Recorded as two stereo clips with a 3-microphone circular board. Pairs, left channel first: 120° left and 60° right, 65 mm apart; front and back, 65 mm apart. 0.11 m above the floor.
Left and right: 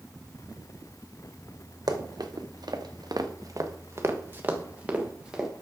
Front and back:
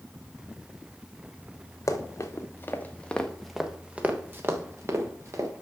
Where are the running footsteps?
40° right, 1.9 m; by 5.5 s 140° right, 2.5 m.